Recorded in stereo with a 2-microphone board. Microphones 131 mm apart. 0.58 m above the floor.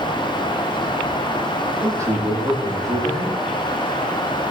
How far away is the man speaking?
About 9.5 m.